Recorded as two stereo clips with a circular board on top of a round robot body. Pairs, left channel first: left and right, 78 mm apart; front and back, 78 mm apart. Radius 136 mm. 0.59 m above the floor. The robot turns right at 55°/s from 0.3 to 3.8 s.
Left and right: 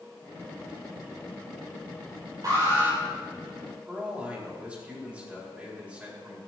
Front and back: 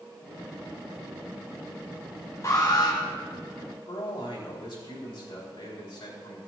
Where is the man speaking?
15° right, 4.5 m.